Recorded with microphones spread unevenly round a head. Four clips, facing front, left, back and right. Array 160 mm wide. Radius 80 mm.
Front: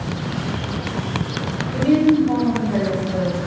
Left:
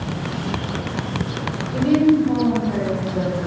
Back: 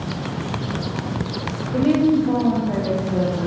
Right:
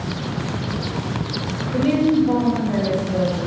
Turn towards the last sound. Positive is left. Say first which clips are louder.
# left 2 dB, front 1 dB
turn(degrees=-165)